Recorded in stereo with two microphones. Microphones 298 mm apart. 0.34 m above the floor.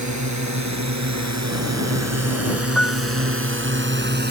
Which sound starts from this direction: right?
A drone, at 0.0 s.